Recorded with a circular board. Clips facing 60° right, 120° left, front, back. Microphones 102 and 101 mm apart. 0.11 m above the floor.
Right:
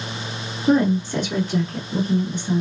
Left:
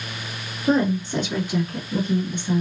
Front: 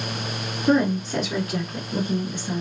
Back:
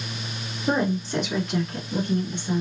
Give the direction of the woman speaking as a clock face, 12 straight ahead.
9 o'clock.